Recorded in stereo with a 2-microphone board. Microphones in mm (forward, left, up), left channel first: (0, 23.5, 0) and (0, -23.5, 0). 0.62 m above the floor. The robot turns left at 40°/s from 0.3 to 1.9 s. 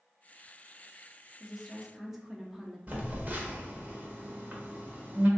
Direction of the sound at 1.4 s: 5° left (ahead or behind).